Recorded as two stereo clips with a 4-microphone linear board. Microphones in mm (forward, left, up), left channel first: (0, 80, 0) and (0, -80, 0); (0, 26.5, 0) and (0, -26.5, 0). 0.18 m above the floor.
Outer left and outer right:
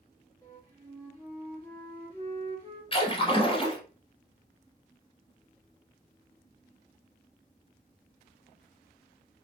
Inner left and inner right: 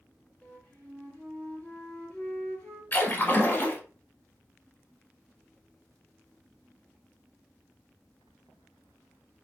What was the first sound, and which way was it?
A flute, 30° left (ahead or behind).